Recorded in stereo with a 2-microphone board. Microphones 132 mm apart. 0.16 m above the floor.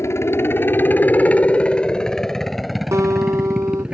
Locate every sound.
0.0 s a helicopter: 20° left (ahead or behind); by 4.0 s 10° right (ahead or behind)
2.9 s a guitar: 25° right (ahead or behind)